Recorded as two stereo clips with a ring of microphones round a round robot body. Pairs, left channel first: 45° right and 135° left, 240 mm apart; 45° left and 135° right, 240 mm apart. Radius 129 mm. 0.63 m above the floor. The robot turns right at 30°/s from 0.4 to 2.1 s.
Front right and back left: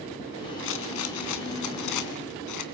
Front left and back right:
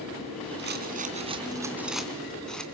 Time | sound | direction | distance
0.6 | a rattle | 90° right | 2.5 m